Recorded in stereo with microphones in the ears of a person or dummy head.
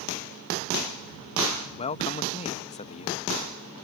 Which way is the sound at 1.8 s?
35° left (ahead or behind).